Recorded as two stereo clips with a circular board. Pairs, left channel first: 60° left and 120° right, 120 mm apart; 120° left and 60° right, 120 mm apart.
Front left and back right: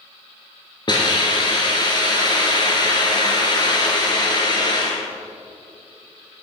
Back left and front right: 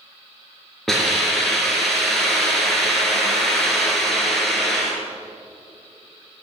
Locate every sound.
0.9 s a hiss: 35° left, 2.5 m